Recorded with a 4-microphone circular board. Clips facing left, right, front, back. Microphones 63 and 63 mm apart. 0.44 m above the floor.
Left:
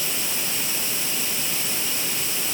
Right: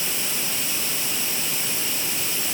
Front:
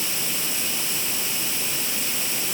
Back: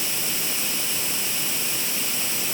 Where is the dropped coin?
I don't hear a dropped coin.